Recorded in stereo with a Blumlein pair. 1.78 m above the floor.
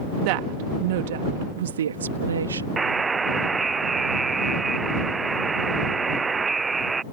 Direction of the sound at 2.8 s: 15° right.